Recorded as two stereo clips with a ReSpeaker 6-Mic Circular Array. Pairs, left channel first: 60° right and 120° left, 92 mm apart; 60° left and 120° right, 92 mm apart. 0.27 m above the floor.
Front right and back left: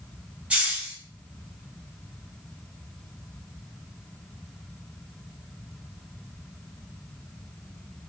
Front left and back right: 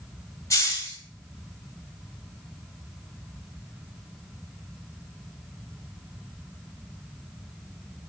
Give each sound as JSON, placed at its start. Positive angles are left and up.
{"t": 0.5, "sound": "a hiss", "azimuth_deg": 50, "distance_m": 1.5}